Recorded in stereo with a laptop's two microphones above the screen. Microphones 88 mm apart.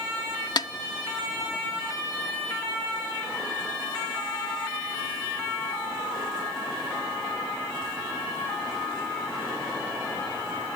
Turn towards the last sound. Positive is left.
turn(degrees=50)  # may be behind; listen again after turning